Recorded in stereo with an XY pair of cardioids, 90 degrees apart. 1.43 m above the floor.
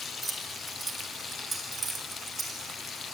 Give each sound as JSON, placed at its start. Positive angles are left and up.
{"t": 0.2, "sound": "keys jangling", "azimuth_deg": -30, "distance_m": 4.5}